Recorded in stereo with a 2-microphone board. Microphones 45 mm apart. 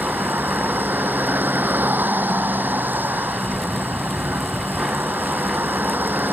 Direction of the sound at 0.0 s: 50° right (ahead or behind).